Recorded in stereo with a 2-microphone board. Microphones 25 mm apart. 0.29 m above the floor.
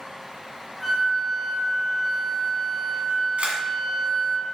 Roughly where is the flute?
Centre.